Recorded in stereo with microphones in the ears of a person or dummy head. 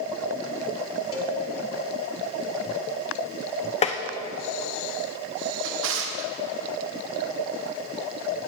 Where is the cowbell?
25° left (ahead or behind), 1.9 m.